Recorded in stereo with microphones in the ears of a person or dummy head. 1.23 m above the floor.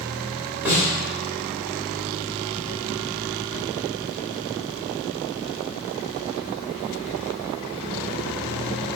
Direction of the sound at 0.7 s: 15° right (ahead or behind).